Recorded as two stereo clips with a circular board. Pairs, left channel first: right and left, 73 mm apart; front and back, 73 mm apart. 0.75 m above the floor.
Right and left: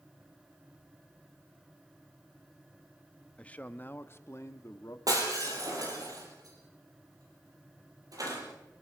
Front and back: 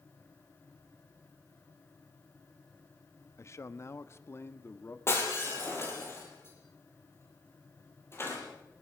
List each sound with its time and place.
3.4 s a man speaking: 25° right, 0.9 m; by 5.0 s 55° right, 1.4 m
5.1 s breaking glass: 55° left, 7 m